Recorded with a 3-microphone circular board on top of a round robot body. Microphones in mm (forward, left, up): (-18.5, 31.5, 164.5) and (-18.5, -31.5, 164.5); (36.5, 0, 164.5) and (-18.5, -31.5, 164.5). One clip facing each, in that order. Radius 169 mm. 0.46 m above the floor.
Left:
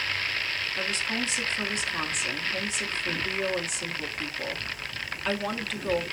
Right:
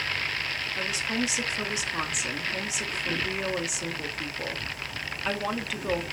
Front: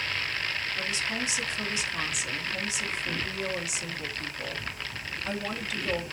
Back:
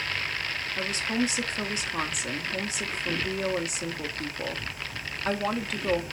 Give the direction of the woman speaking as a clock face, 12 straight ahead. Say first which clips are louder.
Right 2 dB, back 3 dB; 6 o'clock.